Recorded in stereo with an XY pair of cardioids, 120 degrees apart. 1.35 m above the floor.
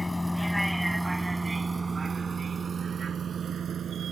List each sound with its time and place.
0.0 s a vehicle: 10° left; by 4.1 s 50° right